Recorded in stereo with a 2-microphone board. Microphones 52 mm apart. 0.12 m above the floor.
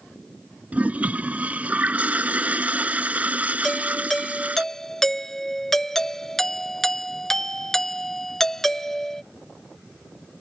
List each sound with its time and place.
0.7 s a toilet flushing: 30° right (ahead or behind)
3.6 s a doorbell: 5° left (ahead or behind)